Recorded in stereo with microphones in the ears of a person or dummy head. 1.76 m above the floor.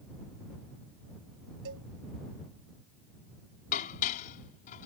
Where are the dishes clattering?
45° left (ahead or behind).